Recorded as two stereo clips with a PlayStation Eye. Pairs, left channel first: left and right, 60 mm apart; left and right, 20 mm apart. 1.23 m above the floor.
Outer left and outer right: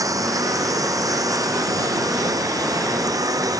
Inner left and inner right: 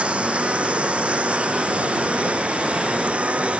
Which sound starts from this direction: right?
A lawn mower, at 0.0 s.